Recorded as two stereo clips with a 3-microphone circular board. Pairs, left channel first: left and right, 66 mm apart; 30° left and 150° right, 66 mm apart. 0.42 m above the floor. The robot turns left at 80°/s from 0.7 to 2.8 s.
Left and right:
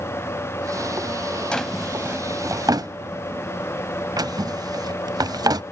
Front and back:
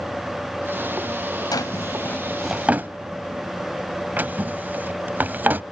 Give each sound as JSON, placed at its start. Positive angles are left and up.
{"t": 1.5, "sound": "a drawer", "azimuth_deg": 15, "distance_m": 0.5}